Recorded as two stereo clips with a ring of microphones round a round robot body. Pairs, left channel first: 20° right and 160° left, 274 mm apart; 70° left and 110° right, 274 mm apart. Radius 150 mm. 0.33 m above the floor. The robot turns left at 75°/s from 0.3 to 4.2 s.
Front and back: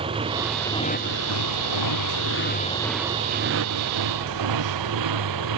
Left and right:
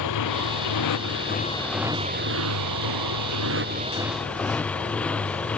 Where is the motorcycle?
85° left; by 5.6 s 155° left.